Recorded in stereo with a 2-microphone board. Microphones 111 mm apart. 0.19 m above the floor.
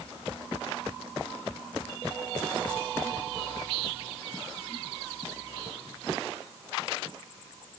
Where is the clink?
I don't hear a clink.